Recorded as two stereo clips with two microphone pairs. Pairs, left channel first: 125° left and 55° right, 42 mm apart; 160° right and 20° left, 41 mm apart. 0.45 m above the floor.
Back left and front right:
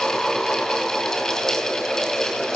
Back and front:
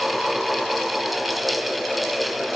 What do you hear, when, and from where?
Only background noise.